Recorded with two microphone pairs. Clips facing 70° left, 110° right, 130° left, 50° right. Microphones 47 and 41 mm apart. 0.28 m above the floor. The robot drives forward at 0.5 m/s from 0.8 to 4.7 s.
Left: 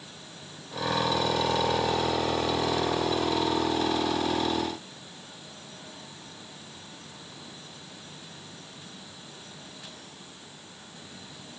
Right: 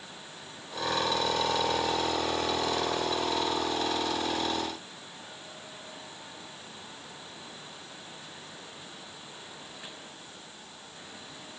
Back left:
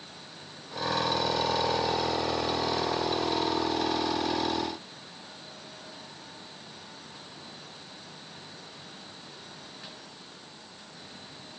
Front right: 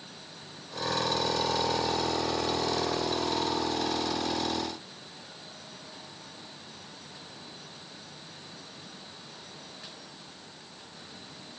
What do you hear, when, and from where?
Only background noise.